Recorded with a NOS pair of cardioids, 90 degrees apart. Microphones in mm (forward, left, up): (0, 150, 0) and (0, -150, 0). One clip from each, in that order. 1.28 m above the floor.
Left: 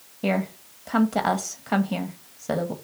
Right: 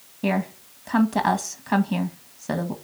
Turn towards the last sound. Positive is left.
turn(degrees=0)